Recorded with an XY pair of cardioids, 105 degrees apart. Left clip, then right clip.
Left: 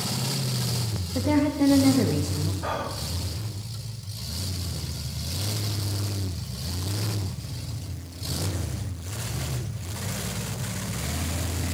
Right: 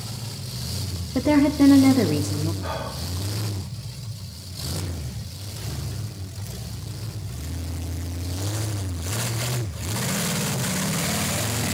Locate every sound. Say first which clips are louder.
1.1 s a woman speaking: right 5 dB; 35° right, 0.9 m
2.6 s whispering: left 1 dB; 30° left, 1.2 m